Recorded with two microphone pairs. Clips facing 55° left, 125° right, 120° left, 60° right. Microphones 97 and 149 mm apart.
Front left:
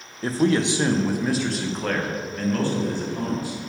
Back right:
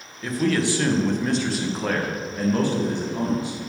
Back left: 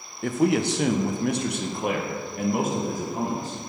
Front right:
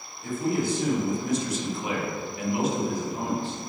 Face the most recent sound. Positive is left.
turn(degrees=170)